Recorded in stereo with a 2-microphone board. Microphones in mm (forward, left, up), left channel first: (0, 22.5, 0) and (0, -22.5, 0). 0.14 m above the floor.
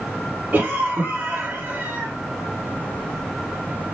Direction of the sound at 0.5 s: 30° right (ahead or behind).